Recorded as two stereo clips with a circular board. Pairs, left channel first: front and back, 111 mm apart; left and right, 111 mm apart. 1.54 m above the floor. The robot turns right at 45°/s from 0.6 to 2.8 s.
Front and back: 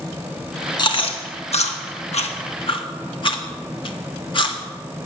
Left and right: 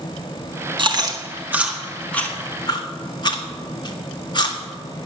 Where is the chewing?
50° right, 1.7 m; by 4.6 s 40° left, 1.7 m.